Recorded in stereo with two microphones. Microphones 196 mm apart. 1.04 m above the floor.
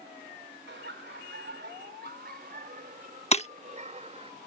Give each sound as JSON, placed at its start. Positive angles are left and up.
{"t": 0.7, "sound": "laughter", "side_deg": -70}
{"t": 3.3, "sound": "breaking glass", "side_deg": 35}